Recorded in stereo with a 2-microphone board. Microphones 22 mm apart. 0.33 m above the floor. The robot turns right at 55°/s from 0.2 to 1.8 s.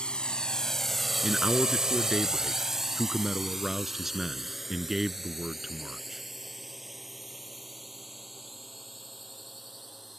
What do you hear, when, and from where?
0.0 s a drone: 60° left (ahead or behind); by 10.2 s 5° right (ahead or behind)
1.2 s a man speaking: 50° right; by 6.2 s 15° right